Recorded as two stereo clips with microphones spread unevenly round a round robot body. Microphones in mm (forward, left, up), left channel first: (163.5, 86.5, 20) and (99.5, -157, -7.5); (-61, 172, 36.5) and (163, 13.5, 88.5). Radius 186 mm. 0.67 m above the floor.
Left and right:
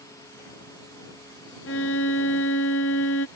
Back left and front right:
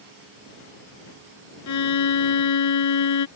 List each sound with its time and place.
1.7 s a violin: 135° left